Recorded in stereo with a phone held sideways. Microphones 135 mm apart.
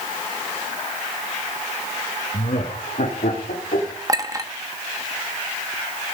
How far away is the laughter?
About 1.7 m.